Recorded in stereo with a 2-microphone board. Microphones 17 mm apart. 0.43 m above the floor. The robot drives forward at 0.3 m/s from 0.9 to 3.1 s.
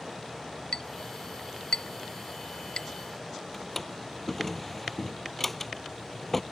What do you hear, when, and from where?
0.7 s a clink: 65° left (ahead or behind); by 2.9 s 55° left (ahead or behind)
3.5 s a drawer: 10° left (ahead or behind)